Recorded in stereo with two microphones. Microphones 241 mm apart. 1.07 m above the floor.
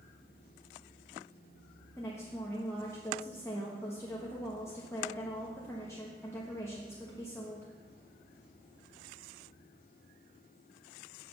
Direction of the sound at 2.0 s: 10° left (ahead or behind).